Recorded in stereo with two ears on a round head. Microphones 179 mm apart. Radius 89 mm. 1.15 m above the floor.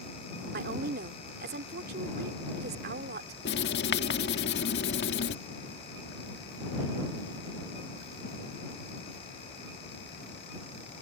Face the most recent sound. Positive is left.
turn(degrees=55)  # may be behind; listen again after turning